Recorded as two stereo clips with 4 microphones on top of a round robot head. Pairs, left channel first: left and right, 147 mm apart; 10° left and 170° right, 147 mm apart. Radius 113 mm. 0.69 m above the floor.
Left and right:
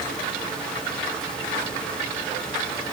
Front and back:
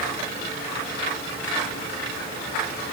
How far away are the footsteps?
No footsteps in this recording.